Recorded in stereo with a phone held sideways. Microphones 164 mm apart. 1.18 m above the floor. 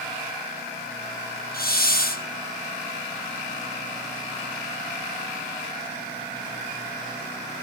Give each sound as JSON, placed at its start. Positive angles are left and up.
{"t": 1.5, "sound": "a hiss", "side_deg": 60, "distance_m": 1.2}